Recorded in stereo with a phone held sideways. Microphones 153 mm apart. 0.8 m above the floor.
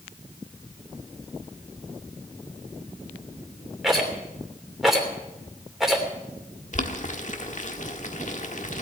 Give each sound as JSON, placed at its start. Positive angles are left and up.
{"t": 3.8, "sound": "a rattle", "side_deg": 0, "distance_m": 3.0}
{"t": 6.7, "sound": "boiling", "side_deg": 55, "distance_m": 1.4}